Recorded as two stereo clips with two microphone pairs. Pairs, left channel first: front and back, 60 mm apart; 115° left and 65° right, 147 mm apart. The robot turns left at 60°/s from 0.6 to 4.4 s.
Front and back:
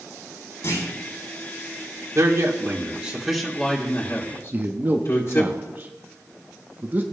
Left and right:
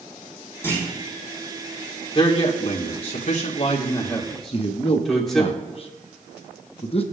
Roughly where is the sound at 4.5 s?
Behind left.